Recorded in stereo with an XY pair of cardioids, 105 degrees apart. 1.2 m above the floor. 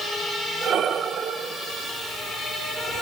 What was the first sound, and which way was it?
Breathing, 60° right.